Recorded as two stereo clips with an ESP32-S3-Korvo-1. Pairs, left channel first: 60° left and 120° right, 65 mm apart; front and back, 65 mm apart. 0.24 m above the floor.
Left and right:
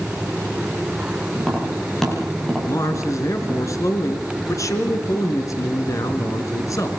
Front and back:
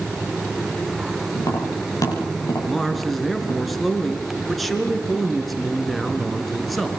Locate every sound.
1.4 s tapping: 25° right, 7.5 m
2.7 s a man speaking: 90° left, 3 m